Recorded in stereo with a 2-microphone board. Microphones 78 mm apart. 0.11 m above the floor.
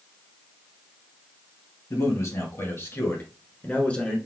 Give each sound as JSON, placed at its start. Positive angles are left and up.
{"t": 1.9, "sound": "a man speaking", "side_deg": 45, "distance_m": 1.9}